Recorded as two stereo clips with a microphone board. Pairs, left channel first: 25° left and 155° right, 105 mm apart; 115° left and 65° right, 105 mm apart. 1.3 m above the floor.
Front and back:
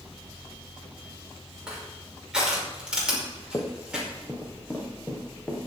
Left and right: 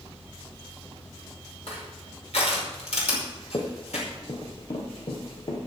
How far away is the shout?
I don't hear a shout.